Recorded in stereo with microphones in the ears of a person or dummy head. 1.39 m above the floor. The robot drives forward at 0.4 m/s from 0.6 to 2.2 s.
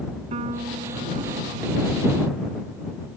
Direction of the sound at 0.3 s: 40° right (ahead or behind).